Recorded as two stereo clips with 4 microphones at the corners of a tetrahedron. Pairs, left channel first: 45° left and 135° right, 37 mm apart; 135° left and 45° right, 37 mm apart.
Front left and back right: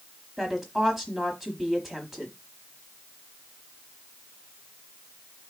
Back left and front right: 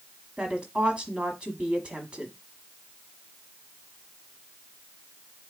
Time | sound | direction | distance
0.4 | a woman speaking | 55° right | 1.1 m